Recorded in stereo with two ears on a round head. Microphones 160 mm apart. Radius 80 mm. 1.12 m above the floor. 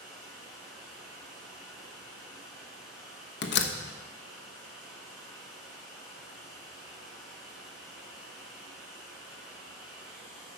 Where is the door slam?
65° left (ahead or behind), 1.1 m.